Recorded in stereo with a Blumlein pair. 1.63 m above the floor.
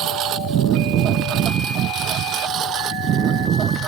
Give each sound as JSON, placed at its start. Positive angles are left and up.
{"t": 0.0, "sound": "a lawn mower", "azimuth_deg": -35}